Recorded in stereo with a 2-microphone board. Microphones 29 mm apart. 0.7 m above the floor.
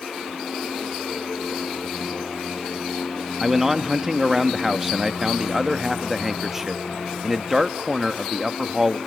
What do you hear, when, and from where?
3.4 s a man speaking: 10° right (ahead or behind), 0.7 m